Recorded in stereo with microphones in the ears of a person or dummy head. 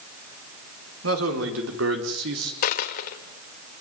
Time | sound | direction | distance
1.0 | a man speaking | 80° right | 5 m
2.6 | a dropped coin | 50° left (ahead or behind) | 1.8 m